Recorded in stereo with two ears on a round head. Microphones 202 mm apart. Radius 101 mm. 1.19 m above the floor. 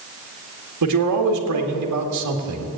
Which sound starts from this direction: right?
A man speaking, at 0.8 s.